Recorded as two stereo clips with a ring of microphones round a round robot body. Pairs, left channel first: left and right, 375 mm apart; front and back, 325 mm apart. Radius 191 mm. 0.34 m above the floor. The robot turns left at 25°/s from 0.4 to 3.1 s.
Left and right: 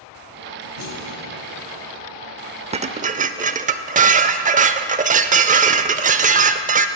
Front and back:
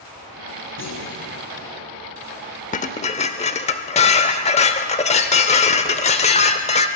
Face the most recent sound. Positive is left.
turn(degrees=-45)